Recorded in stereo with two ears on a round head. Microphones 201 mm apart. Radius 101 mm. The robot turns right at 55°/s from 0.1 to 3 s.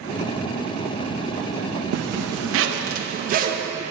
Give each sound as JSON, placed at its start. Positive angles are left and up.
{"t": 1.9, "sound": "a zipper", "azimuth_deg": -95, "distance_m": 0.5}